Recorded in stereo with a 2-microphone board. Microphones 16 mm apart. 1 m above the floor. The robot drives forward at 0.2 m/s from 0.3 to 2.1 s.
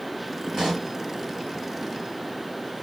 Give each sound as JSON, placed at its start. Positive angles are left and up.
{"t": 0.5, "sound": "a pop", "side_deg": -20, "distance_m": 1.7}